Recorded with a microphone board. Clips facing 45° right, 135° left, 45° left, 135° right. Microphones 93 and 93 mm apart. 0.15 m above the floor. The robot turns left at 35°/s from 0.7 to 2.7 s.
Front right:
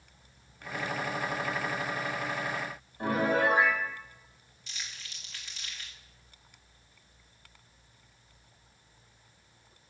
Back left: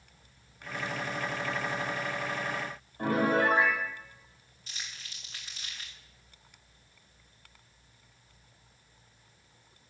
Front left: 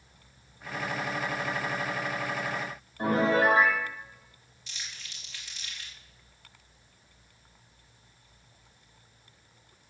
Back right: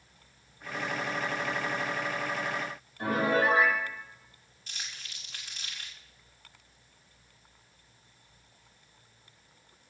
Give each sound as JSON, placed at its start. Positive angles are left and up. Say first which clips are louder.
{"t": 3.0, "sound": "a piano", "louder": "back left 1 dB, front left 2 dB", "azimuth_deg": 100, "distance_m": 6.0}
{"t": 4.7, "sound": "crumpling", "louder": "even, back right 1 dB", "azimuth_deg": -175, "distance_m": 2.5}